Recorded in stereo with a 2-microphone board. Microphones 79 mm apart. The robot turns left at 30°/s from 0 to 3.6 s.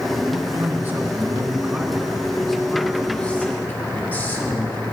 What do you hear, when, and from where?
0.3 s a man speaking: 115° right, 2 m; by 4.8 s 145° left, 2 m